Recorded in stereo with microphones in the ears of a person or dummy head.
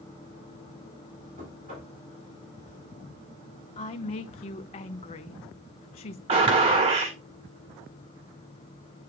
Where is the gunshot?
25° right (ahead or behind), 1.5 m.